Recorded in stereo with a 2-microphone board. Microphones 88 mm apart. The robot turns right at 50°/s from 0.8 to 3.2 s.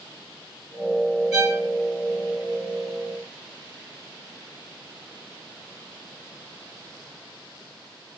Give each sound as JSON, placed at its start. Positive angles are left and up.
{"t": 1.3, "sound": "a violin", "side_deg": -5, "distance_m": 2.5}